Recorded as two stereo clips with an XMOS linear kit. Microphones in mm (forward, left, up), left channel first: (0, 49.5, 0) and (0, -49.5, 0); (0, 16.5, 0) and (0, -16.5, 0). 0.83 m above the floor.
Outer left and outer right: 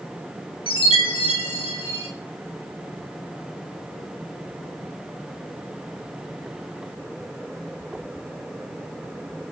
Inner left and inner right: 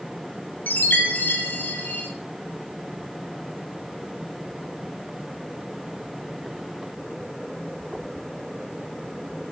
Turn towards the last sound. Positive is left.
turn(degrees=60)  # may be behind; listen again after turning